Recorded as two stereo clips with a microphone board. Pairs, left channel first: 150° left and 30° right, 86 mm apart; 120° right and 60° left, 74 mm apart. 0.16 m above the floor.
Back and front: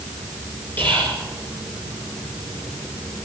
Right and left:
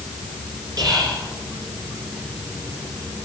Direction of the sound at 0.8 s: 85° left.